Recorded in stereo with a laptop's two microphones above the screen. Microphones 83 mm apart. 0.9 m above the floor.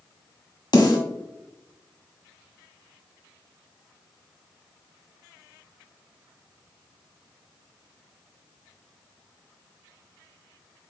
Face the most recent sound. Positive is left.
turn(degrees=60)  # may be behind; listen again after turning